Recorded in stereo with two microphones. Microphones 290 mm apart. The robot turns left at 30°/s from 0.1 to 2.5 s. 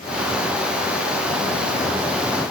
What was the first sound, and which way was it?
Only background noise.